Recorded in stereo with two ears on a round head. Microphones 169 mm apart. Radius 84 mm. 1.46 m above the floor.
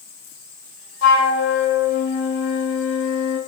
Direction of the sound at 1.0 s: 75° left (ahead or behind).